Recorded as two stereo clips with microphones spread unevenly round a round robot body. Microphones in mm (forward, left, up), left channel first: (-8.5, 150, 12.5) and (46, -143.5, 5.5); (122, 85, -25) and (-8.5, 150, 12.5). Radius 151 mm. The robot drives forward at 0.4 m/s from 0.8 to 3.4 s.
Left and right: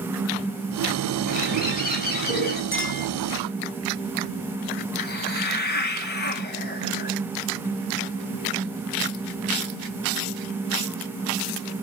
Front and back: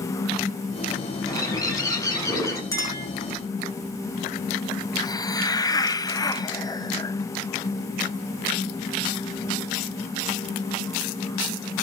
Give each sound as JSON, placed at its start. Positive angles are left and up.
{"t": 1.3, "sound": "a bird", "azimuth_deg": 40, "distance_m": 6.5}
{"t": 2.7, "sound": "a clink", "azimuth_deg": 45, "distance_m": 7.5}
{"t": 5.0, "sound": "a hiss", "azimuth_deg": 40, "distance_m": 1.5}